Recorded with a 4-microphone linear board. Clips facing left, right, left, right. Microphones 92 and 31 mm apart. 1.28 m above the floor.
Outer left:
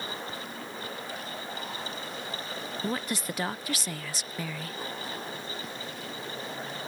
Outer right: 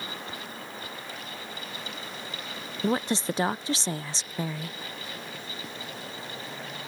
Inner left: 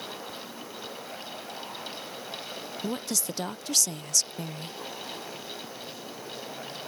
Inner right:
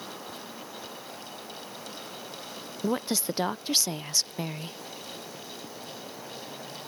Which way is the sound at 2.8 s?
25° right (ahead or behind).